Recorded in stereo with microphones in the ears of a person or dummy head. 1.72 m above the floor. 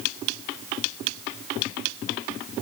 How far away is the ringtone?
No ringtone in this recording.